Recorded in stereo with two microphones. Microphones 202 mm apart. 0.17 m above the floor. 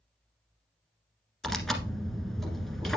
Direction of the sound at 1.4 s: Centre (ahead or behind).